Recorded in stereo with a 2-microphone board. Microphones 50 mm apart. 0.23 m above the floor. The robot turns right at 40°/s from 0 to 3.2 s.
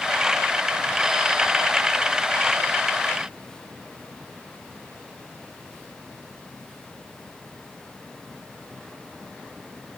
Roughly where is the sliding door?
No sliding door in this recording.